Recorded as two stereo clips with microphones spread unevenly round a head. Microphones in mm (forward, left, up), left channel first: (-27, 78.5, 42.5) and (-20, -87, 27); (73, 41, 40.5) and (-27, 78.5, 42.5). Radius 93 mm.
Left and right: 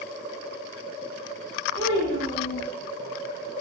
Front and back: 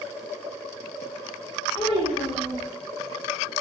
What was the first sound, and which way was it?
A child speaking, 85° right.